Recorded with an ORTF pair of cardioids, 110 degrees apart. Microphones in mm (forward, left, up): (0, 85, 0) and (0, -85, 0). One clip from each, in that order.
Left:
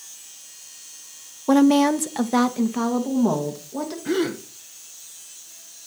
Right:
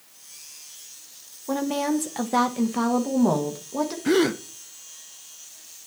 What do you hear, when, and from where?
1.5 s a woman speaking: 45° left, 0.6 m; by 4.0 s 15° right, 1.7 m
4.0 s a gasp: 25° right, 0.6 m